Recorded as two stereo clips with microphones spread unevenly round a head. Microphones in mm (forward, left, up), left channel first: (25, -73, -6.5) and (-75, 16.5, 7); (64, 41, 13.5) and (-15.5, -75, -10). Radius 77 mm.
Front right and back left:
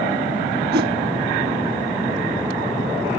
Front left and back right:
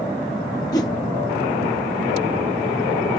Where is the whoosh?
125° left.